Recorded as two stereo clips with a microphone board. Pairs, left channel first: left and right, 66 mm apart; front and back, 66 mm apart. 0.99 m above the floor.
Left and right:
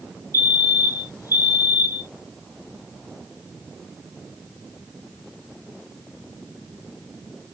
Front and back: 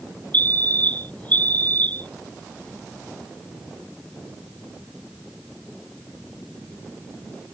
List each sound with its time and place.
0.3 s a fire alarm: 65° left